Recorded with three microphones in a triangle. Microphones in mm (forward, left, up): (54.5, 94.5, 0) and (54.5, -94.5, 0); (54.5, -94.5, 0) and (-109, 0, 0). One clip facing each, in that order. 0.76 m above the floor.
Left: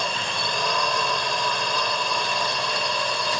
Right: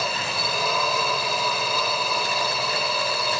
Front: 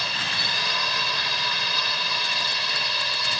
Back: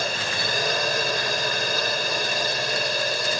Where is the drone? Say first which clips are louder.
Right 1 dB, back 6 dB; 175° right.